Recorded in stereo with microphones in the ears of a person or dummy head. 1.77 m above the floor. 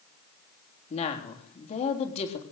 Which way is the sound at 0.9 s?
40° left (ahead or behind).